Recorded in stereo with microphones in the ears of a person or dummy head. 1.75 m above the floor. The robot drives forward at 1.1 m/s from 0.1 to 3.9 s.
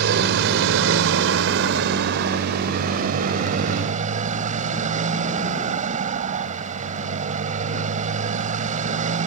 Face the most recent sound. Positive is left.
turn(degrees=-40)  # may be behind; listen again after turning